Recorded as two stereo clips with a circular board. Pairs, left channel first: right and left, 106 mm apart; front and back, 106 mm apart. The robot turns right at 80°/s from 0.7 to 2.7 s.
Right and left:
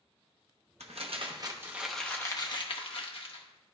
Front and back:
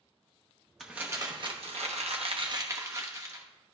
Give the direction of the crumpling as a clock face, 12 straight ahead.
9 o'clock.